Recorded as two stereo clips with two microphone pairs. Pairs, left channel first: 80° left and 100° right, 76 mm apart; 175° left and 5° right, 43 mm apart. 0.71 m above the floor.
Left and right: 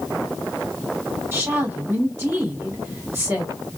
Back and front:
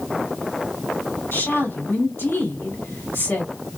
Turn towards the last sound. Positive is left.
turn(degrees=-165)